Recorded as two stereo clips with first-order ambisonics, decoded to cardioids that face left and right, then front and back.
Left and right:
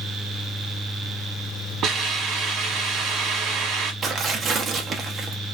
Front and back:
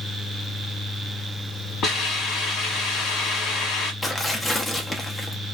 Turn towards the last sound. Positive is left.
turn(degrees=-60)